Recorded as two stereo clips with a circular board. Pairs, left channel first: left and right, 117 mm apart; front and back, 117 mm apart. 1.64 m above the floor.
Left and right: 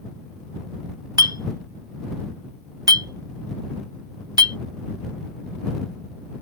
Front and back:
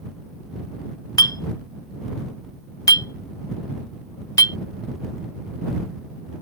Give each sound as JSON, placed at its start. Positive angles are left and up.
{"t": 1.2, "sound": "a clink", "azimuth_deg": -45}